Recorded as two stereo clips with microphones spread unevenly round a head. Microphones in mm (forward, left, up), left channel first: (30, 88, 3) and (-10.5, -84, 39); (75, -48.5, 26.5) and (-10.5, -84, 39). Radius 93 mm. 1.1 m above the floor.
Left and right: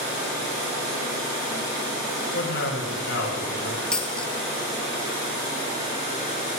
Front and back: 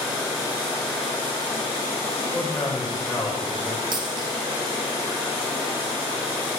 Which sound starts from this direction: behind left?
A man speaking, at 2.3 s.